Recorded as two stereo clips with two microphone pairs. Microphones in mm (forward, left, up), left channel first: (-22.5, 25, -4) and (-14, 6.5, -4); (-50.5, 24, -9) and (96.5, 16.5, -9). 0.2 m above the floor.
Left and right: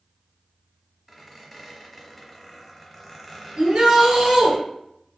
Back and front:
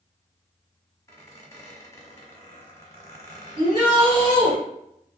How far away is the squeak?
About 0.8 m.